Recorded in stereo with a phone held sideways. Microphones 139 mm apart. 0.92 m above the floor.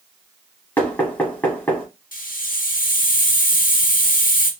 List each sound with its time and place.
0.8 s knocking: 10° left (ahead or behind), 0.9 m
2.1 s a hiss: 70° left (ahead or behind), 0.6 m